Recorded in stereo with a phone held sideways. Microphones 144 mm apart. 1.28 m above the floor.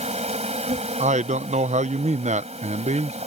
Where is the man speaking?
50° right (ahead or behind).